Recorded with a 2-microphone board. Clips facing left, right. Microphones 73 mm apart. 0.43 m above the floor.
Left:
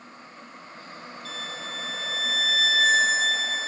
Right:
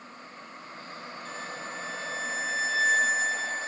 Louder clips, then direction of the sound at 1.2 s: Left 1 dB; 85° left.